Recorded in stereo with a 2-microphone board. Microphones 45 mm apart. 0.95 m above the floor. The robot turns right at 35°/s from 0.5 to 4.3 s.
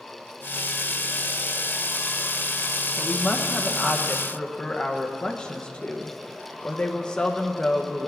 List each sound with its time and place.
3.0 s a woman speaking: 20° left (ahead or behind), 0.8 m